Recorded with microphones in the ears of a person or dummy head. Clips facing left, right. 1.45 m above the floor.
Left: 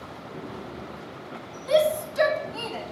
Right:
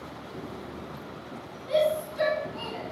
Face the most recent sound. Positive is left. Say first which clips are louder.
# left 3 dB
turn(degrees=70)  # may be behind; listen again after turning